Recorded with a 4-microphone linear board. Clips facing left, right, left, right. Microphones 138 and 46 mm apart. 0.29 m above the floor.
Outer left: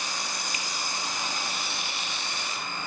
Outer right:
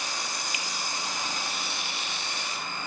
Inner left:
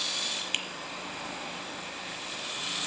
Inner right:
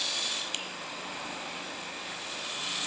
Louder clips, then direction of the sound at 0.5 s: Even, inner left 4 dB; 45° left (ahead or behind).